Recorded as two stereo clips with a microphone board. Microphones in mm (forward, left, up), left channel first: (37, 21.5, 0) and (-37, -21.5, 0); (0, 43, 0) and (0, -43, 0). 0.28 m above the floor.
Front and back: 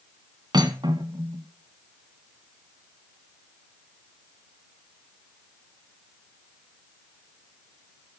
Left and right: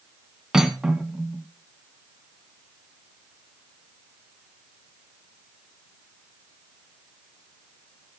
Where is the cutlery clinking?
175° right, 1.2 m.